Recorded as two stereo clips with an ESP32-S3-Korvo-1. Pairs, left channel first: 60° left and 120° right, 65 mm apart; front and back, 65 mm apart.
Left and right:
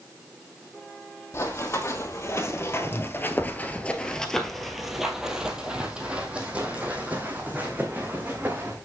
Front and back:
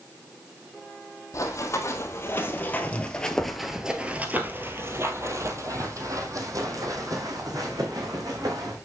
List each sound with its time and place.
1.3 s running footsteps: 25° left, 2 m; by 8.8 s 175° left, 4 m